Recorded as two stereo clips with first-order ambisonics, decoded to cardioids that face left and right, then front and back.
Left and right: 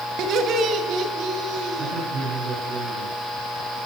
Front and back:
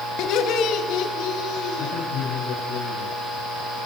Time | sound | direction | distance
0.2 | laughter | 40° right | 3 m
1.8 | a man speaking | 40° right | 7.5 m